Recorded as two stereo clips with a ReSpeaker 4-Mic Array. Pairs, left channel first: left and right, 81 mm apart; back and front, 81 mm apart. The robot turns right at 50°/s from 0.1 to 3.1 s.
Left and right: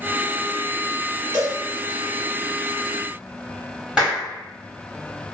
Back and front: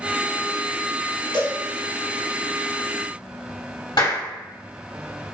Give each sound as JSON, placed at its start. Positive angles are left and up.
{"t": 1.3, "sound": "a cowbell", "azimuth_deg": 170, "distance_m": 1.2}
{"t": 4.0, "sound": "a clap", "azimuth_deg": -170, "distance_m": 2.0}